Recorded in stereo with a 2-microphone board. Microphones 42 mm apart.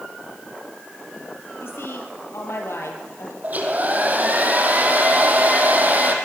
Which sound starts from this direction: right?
A hair dryer, at 3.4 s.